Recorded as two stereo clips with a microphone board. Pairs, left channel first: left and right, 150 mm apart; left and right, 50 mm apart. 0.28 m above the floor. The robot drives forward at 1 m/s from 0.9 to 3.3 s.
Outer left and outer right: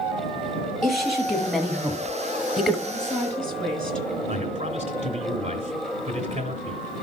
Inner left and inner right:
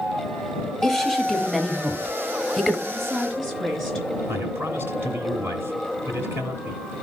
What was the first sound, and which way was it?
A woman speaking, centre (ahead or behind).